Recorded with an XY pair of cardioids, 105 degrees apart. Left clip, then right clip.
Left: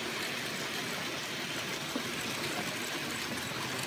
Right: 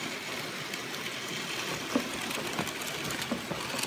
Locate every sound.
1.7 s running footsteps: 55° right; by 3.8 s 60° right